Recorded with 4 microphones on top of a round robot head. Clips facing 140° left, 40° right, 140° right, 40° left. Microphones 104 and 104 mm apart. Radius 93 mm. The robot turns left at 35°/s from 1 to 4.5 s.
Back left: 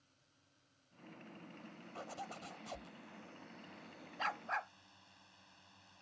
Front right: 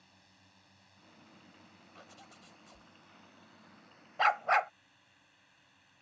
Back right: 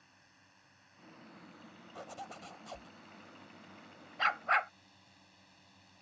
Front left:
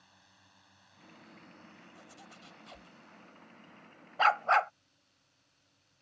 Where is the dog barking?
10° right; by 4.7 s 20° right.